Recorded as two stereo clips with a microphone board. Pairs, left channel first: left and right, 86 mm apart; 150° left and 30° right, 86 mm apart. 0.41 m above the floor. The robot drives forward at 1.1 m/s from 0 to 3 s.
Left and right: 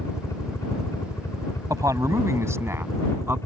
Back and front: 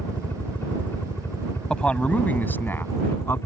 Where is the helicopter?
100° left; by 3.5 s 115° left.